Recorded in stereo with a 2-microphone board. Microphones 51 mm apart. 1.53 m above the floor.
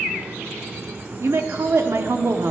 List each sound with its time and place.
1.2 s a woman speaking: 55° right (ahead or behind), 0.9 m